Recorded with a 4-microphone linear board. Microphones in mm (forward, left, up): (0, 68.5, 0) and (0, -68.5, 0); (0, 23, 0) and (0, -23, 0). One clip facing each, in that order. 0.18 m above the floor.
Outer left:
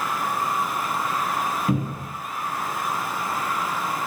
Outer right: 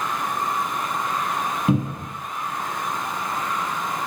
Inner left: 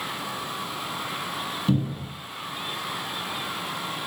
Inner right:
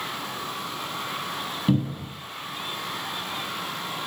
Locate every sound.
1.7 s a cupboard door: 25° right (ahead or behind), 0.9 m